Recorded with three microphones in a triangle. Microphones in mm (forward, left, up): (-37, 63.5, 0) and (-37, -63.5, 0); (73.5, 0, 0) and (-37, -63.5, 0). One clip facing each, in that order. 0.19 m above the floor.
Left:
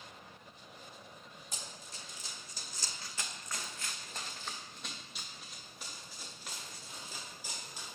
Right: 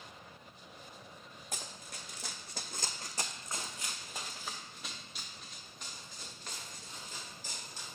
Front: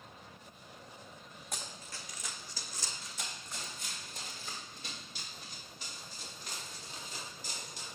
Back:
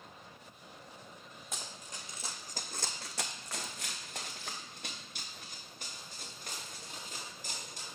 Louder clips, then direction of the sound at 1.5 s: Right 4 dB, front 1 dB; 65° right.